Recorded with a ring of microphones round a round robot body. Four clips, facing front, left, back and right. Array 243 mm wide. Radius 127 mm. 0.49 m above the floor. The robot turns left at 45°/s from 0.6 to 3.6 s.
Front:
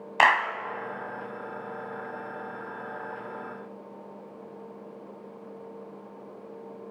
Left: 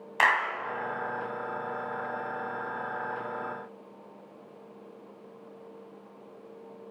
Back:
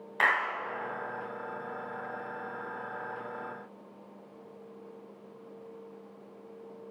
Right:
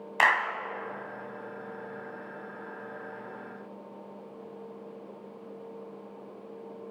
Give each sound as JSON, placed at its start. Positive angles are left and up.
{"t": 0.2, "sound": "a clap", "azimuth_deg": -5, "distance_m": 2.5}